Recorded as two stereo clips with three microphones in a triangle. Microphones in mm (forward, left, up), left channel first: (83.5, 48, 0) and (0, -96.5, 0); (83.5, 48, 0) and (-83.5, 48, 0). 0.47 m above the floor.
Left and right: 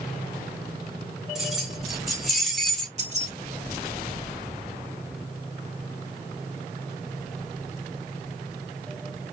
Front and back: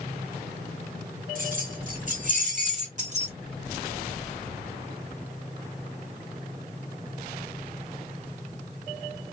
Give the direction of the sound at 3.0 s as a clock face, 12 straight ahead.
5 o'clock.